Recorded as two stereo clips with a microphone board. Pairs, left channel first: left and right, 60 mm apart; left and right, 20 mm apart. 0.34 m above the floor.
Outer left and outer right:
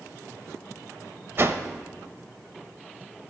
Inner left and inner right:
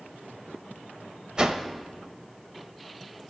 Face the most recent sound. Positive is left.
turn(degrees=-40)  # may be behind; listen again after turning